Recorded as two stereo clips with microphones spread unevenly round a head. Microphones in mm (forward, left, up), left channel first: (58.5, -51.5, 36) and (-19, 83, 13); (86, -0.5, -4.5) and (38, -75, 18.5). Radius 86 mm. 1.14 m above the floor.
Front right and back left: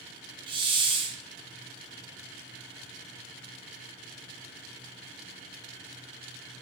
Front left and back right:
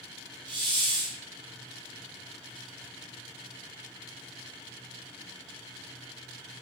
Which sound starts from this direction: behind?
A hiss, at 0.5 s.